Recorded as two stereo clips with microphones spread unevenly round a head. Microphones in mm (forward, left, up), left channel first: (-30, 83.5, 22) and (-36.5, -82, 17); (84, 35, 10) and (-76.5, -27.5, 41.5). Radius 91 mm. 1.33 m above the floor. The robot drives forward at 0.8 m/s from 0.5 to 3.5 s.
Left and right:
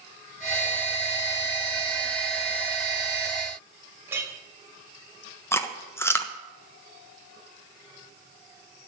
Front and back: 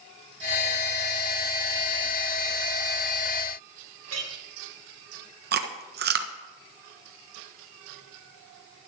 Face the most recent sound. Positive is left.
turn(degrees=165)